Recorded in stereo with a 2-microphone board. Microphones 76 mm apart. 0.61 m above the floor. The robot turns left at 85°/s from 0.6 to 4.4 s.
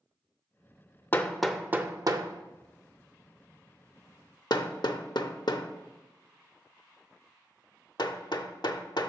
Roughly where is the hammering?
Left.